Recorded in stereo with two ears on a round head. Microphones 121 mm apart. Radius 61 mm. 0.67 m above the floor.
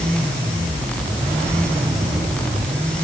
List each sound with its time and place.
Only background noise.